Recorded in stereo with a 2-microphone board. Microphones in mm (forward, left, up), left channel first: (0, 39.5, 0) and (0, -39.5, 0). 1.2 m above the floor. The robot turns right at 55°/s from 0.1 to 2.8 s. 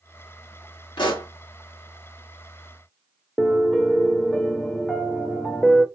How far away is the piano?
About 0.5 m.